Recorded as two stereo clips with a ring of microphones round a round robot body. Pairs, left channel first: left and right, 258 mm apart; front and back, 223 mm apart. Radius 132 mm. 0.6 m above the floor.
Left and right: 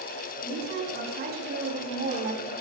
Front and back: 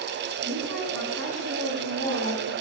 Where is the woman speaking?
140° right, 7.5 m; by 2.5 s 150° right, 4.5 m.